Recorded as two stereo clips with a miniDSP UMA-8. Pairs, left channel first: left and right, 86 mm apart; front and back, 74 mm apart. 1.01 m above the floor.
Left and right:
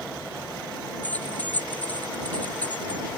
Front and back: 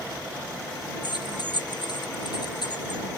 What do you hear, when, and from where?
1.0 s keys jangling: 15° left